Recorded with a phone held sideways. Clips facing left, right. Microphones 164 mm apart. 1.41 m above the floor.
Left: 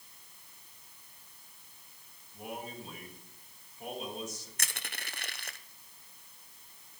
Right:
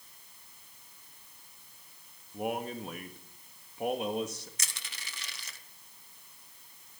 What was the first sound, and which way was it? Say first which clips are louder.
A man speaking: right 8 dB; 60° right (ahead or behind).